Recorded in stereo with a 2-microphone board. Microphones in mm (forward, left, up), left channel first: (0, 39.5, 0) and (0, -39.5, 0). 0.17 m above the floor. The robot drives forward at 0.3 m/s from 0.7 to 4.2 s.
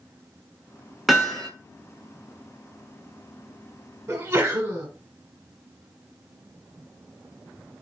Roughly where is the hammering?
Centre.